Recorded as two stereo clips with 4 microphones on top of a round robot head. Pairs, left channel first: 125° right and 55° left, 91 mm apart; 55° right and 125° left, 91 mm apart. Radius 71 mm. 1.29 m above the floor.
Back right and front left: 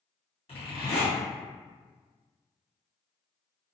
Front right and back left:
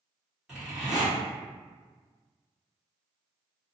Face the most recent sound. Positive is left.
turn(degrees=-150)